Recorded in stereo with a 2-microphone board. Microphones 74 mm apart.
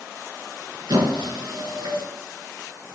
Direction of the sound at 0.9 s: 70° right (ahead or behind).